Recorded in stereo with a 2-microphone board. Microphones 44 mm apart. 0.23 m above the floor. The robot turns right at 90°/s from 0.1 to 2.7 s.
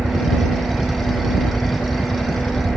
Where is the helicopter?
45° right (ahead or behind); by 2.8 s 10° left (ahead or behind).